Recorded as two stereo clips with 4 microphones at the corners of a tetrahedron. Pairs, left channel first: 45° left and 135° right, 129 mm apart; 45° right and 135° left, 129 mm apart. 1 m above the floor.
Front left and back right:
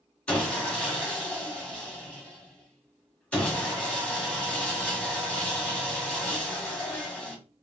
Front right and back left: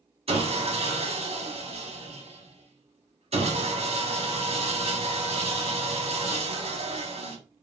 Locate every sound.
0.3 s sawing: 125° left, 0.8 m